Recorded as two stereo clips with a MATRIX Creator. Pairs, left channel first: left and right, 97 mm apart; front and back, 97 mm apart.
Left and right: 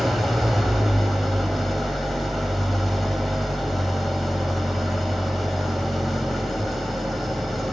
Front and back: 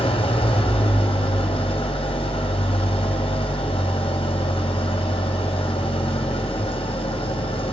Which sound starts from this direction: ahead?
An engine running, at 0.0 s.